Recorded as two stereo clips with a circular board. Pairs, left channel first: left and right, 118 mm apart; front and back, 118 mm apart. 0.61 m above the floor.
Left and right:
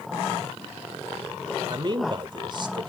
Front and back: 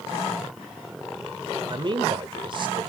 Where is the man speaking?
135° right, 1.9 m.